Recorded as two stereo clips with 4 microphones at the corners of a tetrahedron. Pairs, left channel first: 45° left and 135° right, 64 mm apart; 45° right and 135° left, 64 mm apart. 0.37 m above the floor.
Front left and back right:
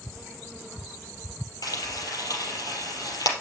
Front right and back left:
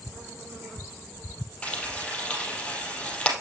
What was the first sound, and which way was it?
Frying, 30° left.